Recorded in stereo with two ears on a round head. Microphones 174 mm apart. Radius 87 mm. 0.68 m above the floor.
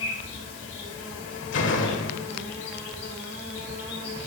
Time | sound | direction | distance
0.0 | an insect | 80° left | 4.5 m
1.5 | a door slam | 70° left (ahead or behind) | 1.5 m